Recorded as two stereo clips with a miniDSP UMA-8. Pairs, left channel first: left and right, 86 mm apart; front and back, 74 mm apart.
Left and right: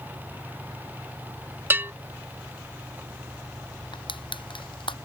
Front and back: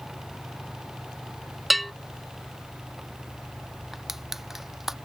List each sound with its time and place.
1.7 s a bell: 90° right
3.9 s crushing: 95° left